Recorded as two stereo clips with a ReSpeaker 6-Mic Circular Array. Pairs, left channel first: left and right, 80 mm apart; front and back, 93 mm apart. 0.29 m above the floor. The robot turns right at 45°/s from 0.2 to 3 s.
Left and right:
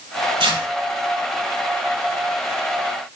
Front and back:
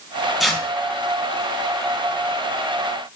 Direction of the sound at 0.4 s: 90° right.